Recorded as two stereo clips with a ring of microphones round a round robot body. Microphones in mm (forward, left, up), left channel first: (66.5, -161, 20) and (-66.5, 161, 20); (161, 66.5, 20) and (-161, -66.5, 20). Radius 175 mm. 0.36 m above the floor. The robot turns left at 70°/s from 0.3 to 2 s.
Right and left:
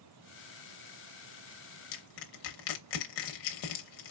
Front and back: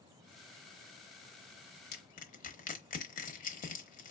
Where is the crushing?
40° right, 0.9 m; by 4.1 s 45° right, 0.9 m.